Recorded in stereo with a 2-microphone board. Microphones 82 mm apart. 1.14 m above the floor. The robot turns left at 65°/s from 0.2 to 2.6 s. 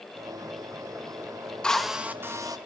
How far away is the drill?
About 1.1 m.